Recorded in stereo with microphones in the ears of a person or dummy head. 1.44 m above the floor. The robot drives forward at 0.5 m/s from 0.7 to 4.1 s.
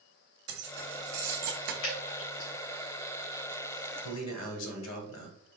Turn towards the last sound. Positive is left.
turn(degrees=75)  # may be behind; listen again after turning